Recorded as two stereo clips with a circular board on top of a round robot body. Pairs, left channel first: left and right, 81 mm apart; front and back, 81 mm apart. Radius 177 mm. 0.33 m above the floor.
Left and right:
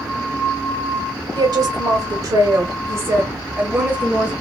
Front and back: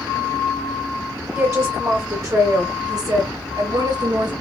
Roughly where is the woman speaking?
Right.